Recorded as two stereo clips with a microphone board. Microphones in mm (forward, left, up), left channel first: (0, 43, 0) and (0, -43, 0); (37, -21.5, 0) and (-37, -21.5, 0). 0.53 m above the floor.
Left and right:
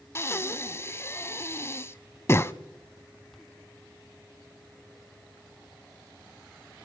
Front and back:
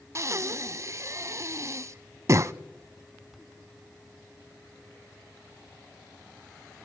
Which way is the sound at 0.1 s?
140° left.